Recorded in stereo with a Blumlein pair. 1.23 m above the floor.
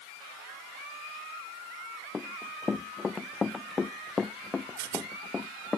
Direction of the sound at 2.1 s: 20° left.